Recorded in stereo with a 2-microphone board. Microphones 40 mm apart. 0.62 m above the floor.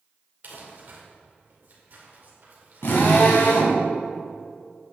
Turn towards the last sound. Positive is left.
turn(degrees=70)  # may be behind; listen again after turning